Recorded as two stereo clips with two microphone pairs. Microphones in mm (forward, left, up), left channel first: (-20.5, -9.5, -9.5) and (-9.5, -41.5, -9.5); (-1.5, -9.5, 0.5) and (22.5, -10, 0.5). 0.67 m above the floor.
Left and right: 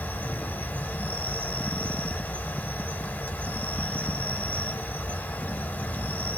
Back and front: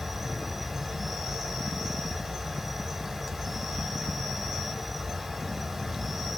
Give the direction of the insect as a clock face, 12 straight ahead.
9 o'clock.